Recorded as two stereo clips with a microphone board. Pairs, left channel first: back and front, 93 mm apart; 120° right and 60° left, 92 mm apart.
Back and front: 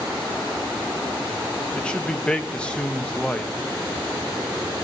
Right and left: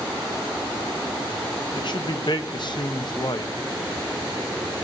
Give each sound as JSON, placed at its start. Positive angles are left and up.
{"t": 1.7, "sound": "a man speaking", "azimuth_deg": -105, "distance_m": 0.9}